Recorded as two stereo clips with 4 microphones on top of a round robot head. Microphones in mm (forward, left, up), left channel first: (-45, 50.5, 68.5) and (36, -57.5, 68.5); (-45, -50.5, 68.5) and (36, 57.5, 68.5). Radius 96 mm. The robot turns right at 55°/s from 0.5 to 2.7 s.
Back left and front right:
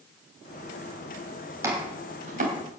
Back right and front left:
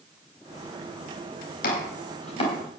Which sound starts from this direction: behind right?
Chopping, at 1.6 s.